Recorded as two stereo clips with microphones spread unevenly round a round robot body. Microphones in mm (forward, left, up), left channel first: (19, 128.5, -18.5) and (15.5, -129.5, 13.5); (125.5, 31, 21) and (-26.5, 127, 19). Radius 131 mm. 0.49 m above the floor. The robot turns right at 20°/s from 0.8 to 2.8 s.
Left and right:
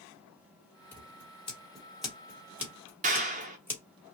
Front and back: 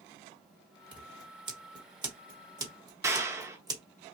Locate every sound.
0.9 s scissors: 140° left, 1.3 m; by 3.8 s straight behind, 1.3 m
3.0 s a clap: 145° right, 0.5 m